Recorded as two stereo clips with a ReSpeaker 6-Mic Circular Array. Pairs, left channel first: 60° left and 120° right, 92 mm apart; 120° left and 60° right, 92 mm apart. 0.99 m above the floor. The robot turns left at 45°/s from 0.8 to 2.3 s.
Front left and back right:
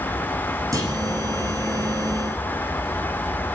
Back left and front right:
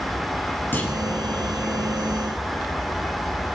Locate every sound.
0.7 s a clunk: 175° right, 7.5 m; by 1.0 s straight behind, 7.5 m